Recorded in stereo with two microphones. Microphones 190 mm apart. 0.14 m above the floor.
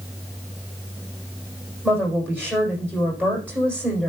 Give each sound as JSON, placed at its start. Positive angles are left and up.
{"t": 1.8, "sound": "a woman speaking", "side_deg": -10, "distance_m": 7.0}